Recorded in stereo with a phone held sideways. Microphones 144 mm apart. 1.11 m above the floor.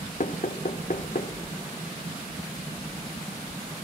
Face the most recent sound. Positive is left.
turn(degrees=55)  # may be behind; listen again after turning